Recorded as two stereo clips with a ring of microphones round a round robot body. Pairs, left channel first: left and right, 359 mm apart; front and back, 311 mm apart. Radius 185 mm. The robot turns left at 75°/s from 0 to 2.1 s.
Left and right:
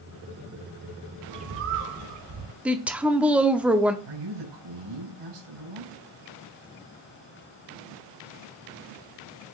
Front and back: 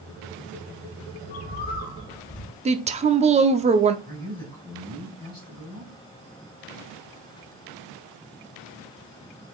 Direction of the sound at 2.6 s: 170° right.